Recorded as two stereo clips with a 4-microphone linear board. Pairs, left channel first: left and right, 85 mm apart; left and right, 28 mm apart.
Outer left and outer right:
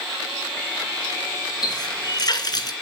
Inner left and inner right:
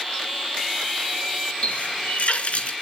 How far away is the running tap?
About 2.5 m.